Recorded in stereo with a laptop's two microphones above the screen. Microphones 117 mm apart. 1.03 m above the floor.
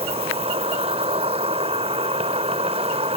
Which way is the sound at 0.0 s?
65° right (ahead or behind).